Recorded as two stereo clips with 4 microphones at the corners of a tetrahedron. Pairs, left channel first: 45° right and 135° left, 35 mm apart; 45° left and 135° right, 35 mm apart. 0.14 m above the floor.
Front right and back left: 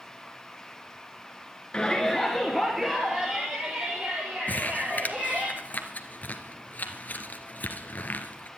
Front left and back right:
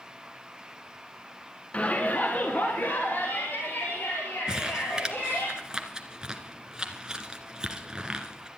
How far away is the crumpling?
About 1.6 m.